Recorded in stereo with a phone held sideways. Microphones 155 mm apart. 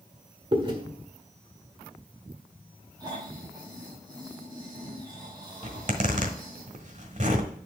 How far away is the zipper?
About 1.3 m.